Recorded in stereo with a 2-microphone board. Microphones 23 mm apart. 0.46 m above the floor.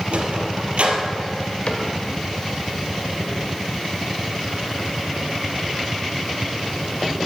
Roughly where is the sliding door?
Right.